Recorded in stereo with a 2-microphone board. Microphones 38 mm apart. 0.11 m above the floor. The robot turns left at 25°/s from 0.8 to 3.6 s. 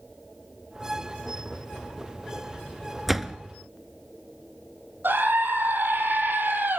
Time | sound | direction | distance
3.1 | a door slam | 5° right (ahead or behind) | 0.9 m
5.0 | a scream | 70° right (ahead or behind) | 3 m